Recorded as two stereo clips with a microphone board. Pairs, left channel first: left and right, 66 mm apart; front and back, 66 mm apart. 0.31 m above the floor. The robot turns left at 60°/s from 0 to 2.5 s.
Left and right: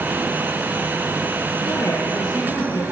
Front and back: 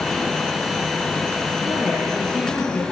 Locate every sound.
1.6 s a woman speaking: 115° left, 6.5 m; by 2.8 s 65° left, 6.5 m